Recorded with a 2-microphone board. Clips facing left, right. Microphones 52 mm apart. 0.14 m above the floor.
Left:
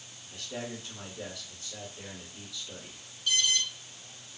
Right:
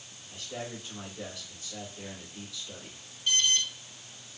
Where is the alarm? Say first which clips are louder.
Right 1 dB; 30° right (ahead or behind), 1.3 m.